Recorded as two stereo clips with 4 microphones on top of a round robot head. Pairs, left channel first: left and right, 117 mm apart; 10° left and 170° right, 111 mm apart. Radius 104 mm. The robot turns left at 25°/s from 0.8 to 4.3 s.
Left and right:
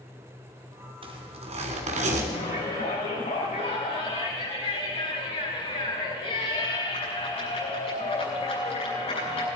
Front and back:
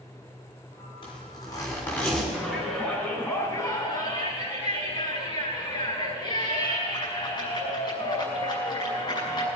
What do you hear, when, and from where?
1.0 s a zipper: 45° right, 3 m; by 2.2 s 75° right, 3 m
2.3 s a shout: 105° left, 7 m; by 9.5 s 55° left, 7 m